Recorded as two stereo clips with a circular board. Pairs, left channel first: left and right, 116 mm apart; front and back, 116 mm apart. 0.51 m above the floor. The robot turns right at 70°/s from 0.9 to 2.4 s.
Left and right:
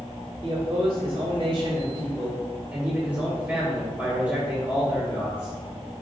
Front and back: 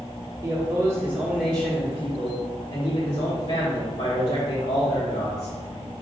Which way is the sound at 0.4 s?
135° right.